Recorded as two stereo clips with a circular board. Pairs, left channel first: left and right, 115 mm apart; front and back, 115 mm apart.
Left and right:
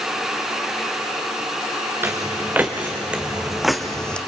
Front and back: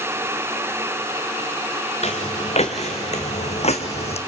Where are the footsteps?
20° right, 2.0 m; by 4.2 s 10° left, 1.1 m.